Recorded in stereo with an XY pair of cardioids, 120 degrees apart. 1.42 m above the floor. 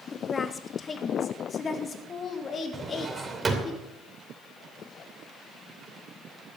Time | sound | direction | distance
0.1 | a woman speaking | 25° left | 1.3 m
2.7 | a drawer | 25° right | 2.5 m